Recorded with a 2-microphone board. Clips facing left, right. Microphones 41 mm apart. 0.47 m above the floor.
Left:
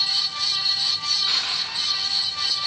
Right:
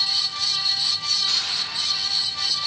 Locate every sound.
1.3 s crushing: 25° left (ahead or behind), 4 m